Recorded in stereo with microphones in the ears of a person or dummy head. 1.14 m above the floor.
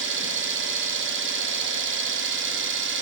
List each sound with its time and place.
0.0 s an engine running: 60° right (ahead or behind), 0.7 m